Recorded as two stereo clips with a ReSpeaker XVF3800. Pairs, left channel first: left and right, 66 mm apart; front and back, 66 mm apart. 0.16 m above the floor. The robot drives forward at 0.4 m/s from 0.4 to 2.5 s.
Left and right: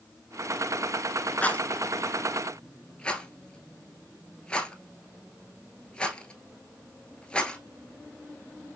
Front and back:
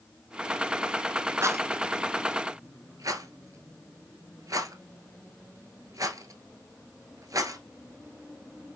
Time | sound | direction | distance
1.4 | a rattle | 150° left | 0.7 m